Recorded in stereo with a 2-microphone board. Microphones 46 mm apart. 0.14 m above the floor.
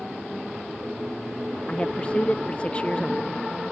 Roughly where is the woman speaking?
Left.